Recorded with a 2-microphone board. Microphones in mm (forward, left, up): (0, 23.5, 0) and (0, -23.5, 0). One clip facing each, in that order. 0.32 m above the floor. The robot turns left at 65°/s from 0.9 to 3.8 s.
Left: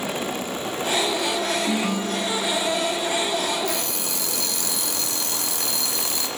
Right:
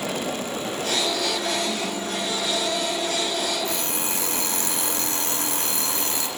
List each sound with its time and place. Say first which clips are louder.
1.7 s a ringtone: left 3 dB; 80° left, 1.2 m; by 3.0 s 5° right, 1.2 m
3.6 s an alarm clock: even; 25° right (ahead or behind), 4 m; by 6.3 s 35° right (ahead or behind), 4 m